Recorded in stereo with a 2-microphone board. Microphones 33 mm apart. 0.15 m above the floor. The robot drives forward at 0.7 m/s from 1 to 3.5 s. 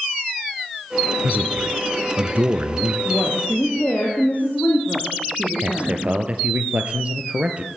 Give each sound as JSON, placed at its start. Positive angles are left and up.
{"t": 1.2, "sound": "a man speaking", "side_deg": -45, "distance_m": 2.5}
{"t": 3.0, "sound": "a woman speaking", "side_deg": 45, "distance_m": 7.0}
{"t": 5.6, "sound": "a man speaking", "side_deg": -40, "distance_m": 3.0}